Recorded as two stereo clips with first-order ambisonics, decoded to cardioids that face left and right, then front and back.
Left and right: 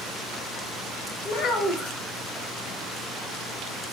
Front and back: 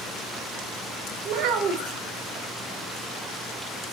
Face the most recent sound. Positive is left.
turn(degrees=150)